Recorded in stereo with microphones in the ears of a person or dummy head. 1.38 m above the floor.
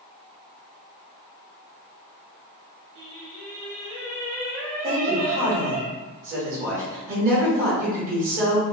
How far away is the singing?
About 1.6 m.